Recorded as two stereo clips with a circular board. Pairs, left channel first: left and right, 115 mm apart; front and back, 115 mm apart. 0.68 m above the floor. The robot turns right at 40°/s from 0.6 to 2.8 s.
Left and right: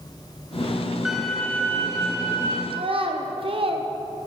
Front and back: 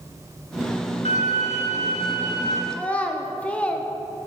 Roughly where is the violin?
Ahead.